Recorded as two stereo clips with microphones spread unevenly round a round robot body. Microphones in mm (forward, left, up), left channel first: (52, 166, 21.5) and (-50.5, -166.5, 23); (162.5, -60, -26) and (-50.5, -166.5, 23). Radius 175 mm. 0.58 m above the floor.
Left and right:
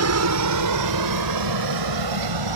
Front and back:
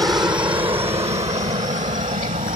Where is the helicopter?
75° right; by 2.6 s 95° right.